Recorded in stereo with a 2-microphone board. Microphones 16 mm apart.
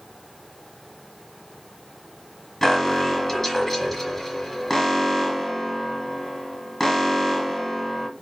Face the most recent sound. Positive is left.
turn(degrees=15)  # may be behind; listen again after turning